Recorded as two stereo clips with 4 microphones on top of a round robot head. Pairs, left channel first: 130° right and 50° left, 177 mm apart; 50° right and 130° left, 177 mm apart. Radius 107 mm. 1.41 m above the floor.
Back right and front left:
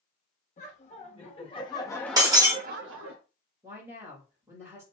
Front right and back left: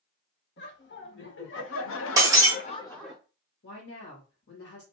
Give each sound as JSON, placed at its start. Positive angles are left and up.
{"t": 0.6, "sound": "laughter", "azimuth_deg": -80, "distance_m": 2.0}
{"t": 2.2, "sound": "breaking glass", "azimuth_deg": 85, "distance_m": 0.7}
{"t": 3.6, "sound": "a woman speaking", "azimuth_deg": -25, "distance_m": 2.0}